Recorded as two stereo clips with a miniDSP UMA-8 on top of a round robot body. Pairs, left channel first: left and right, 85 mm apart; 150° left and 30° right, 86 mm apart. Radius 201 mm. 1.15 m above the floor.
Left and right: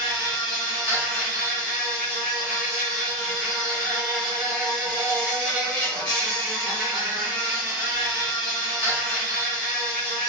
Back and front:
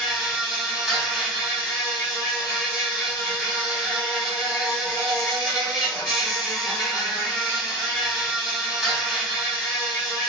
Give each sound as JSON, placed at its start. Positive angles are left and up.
{"t": 0.0, "sound": "an insect", "azimuth_deg": 65, "distance_m": 0.9}